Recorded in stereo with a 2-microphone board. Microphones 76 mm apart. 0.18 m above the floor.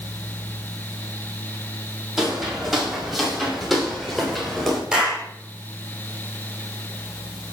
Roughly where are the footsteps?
Centre.